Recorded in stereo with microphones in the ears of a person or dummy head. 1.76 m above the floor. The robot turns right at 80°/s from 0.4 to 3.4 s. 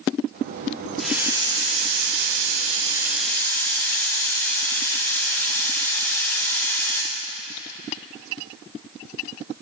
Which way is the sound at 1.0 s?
Straight behind.